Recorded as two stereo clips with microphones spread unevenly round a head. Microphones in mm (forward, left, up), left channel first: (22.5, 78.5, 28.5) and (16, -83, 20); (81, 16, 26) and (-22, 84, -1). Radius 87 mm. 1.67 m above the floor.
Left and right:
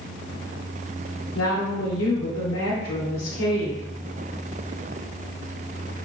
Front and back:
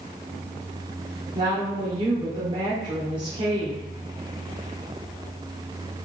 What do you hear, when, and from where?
1.4 s a woman speaking: 95° left, 1.3 m